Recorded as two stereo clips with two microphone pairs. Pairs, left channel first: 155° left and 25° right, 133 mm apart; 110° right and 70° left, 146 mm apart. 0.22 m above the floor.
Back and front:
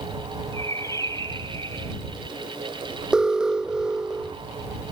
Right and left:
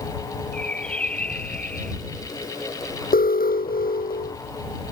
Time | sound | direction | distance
0.5 | a bird | 175° left | ?
3.1 | an alarm | 110° right | ?